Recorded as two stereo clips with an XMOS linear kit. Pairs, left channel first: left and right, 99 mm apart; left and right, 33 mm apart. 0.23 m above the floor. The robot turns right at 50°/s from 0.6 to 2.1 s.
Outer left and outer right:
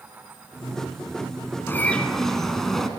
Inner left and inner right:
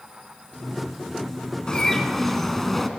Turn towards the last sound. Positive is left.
turn(degrees=5)  # may be behind; listen again after turning